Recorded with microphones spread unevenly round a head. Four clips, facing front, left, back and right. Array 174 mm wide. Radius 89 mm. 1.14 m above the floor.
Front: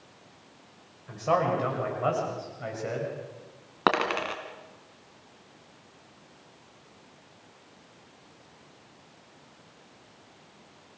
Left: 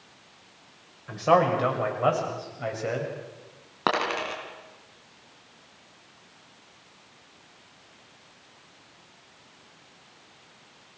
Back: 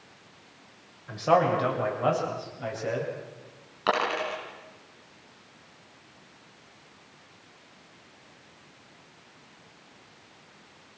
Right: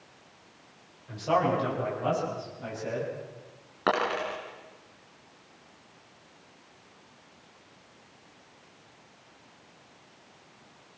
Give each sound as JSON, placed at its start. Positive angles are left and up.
{"t": 1.1, "sound": "a man speaking", "azimuth_deg": 115, "distance_m": 6.0}
{"t": 3.9, "sound": "a dropped coin", "azimuth_deg": 25, "distance_m": 2.5}